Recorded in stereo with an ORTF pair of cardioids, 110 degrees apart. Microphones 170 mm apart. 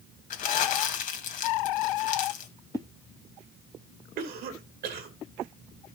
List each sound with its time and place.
0.3 s crumpling: 60° left, 2 m
2.7 s a whoosh: 20° left, 0.6 m
4.2 s a cough: 70° right, 2.5 m